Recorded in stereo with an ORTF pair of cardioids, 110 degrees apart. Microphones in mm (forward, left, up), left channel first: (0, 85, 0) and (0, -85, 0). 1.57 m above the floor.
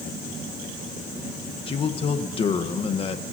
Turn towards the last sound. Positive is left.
turn(degrees=35)